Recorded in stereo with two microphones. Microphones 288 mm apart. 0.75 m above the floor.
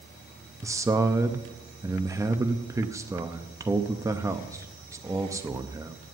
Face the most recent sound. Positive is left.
turn(degrees=-10)  # may be behind; listen again after turning